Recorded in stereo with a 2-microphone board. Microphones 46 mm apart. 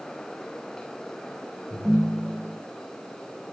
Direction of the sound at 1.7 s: 5° left (ahead or behind).